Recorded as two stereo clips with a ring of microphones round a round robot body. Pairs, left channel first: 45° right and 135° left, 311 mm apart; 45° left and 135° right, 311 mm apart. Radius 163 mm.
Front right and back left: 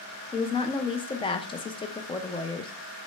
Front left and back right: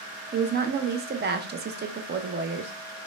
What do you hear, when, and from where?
0.3 s a woman speaking: 105° right, 0.5 m